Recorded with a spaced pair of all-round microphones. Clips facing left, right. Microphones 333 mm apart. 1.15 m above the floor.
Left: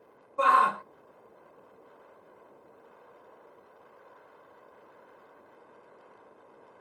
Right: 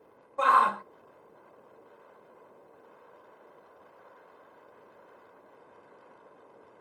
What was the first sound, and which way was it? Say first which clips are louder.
A shout: left 1 dB; 15° left (ahead or behind).